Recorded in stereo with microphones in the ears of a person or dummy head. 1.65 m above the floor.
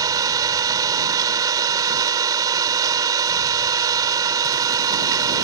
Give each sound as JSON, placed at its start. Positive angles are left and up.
{"t": 0.0, "sound": "an engine running", "side_deg": -20}